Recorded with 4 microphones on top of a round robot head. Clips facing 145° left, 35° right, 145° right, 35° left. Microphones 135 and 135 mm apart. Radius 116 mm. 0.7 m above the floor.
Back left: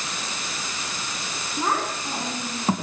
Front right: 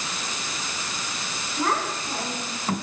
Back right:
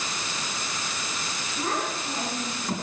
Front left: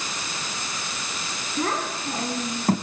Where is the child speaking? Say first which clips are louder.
Even, front left 3 dB; 65° left, 6 m; by 2.7 s 75° left, 5 m.